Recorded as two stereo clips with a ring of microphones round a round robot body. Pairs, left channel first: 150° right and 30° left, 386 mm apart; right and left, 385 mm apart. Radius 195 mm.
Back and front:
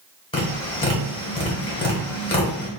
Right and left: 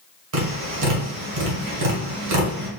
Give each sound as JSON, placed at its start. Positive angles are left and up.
{"t": 0.3, "sound": "tapping", "azimuth_deg": 135, "distance_m": 2.0}